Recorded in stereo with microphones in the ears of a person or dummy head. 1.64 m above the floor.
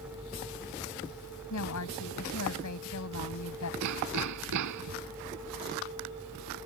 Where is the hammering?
70° right (ahead or behind).